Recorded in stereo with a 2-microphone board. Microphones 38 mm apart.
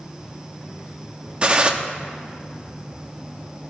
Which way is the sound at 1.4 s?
30° right (ahead or behind).